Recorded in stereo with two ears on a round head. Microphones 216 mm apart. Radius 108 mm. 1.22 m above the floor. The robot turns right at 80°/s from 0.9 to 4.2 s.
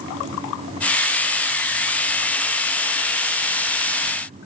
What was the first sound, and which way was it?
Only background noise.